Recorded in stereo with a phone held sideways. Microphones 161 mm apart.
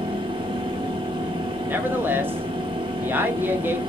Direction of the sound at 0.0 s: 30° right (ahead or behind).